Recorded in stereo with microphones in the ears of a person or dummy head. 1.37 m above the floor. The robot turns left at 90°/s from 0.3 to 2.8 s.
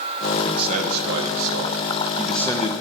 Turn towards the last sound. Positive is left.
turn(degrees=130)